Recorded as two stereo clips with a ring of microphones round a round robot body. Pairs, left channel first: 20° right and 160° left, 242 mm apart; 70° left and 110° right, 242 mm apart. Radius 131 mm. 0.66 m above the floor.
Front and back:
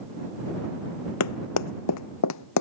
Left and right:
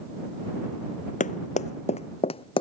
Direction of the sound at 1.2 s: 5° left.